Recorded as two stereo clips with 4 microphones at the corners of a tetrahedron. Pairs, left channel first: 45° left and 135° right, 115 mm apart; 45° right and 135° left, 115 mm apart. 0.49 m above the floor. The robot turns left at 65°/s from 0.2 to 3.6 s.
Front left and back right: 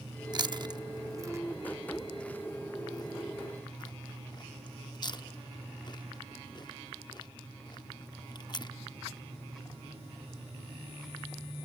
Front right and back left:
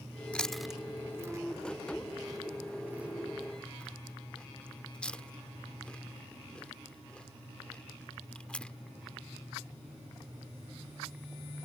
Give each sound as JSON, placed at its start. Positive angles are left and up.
{"t": 0.3, "sound": "chewing", "azimuth_deg": -115}